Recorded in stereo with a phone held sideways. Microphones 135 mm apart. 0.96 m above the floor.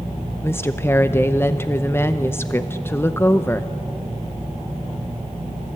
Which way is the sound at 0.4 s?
15° left (ahead or behind).